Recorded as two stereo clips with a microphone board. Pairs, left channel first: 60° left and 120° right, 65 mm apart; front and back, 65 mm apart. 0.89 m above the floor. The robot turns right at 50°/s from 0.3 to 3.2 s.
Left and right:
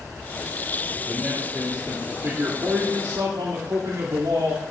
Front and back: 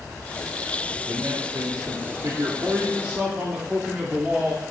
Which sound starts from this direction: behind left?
A man speaking, at 1.1 s.